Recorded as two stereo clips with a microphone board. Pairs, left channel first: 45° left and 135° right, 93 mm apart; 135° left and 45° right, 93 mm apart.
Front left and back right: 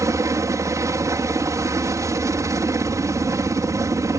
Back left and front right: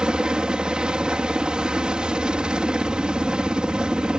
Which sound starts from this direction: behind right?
A helicopter, at 0.0 s.